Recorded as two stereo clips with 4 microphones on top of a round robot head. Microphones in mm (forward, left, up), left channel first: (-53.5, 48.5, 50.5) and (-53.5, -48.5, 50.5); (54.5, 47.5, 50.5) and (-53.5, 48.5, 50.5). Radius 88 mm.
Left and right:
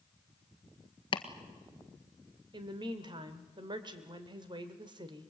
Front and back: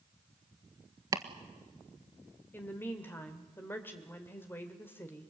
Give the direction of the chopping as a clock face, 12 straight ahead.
8 o'clock.